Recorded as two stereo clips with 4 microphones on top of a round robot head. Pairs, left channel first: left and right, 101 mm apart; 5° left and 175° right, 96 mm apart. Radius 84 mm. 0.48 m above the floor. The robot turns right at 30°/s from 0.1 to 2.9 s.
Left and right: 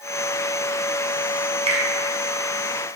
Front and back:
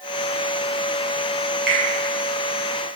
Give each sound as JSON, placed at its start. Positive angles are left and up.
{"t": 1.7, "sound": "a finger snap", "azimuth_deg": -90, "distance_m": 2.5}